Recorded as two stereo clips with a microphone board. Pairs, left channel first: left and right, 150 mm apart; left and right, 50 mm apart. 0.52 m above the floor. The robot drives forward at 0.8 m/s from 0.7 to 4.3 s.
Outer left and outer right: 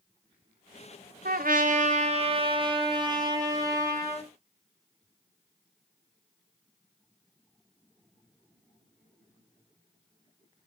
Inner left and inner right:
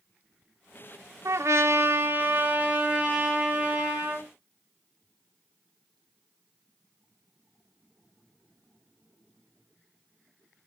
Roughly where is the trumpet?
Right.